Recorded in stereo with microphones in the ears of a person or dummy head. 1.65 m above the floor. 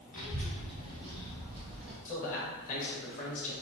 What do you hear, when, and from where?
0.1 s a child speaking: 50° left (ahead or behind), 1.1 m; by 1.9 s 5° left (ahead or behind), 1.7 m
2.0 s a man speaking: 40° left (ahead or behind), 1.6 m